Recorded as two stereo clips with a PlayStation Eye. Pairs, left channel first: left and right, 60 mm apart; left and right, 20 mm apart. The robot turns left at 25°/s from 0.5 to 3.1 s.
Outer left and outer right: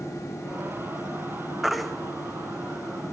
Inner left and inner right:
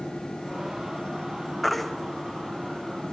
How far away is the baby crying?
About 1.3 m.